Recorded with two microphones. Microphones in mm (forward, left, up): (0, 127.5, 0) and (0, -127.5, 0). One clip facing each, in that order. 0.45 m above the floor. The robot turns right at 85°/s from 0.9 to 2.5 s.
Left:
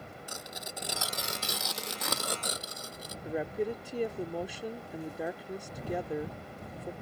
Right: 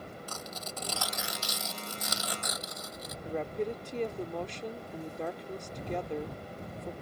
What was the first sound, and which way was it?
Tearing paper, 15° left (ahead or behind).